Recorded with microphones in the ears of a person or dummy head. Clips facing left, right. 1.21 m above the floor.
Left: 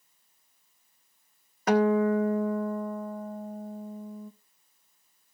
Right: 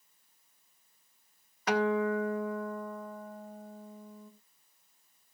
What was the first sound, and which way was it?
A guitar, 35° left (ahead or behind).